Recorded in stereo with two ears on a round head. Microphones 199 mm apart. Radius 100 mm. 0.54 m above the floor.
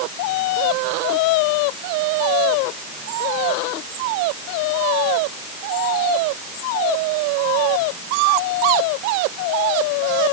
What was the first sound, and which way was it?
Only background noise.